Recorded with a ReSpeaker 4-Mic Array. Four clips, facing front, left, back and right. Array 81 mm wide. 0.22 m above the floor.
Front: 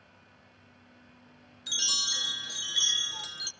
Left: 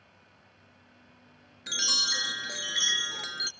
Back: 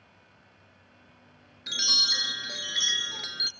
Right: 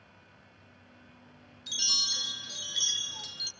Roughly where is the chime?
Behind left.